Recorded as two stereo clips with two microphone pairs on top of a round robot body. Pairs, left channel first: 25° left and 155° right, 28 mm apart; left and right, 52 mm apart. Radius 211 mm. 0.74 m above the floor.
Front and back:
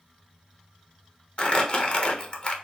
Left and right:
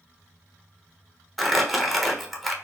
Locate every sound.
1.4 s crumpling: straight ahead, 1.1 m